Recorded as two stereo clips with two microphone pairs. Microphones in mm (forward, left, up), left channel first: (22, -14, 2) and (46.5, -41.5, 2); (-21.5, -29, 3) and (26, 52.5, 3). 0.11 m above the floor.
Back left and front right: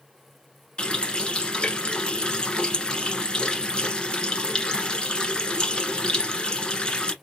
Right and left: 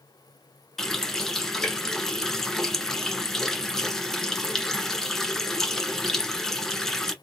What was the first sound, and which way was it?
A running tap, 155° left.